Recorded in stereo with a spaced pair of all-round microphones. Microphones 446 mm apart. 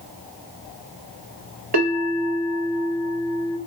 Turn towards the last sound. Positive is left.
turn(degrees=-60)  # may be behind; listen again after turning